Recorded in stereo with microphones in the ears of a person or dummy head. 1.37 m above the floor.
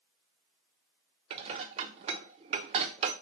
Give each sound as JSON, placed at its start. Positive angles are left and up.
{"t": 1.3, "sound": "dishes clattering", "side_deg": -35, "distance_m": 0.6}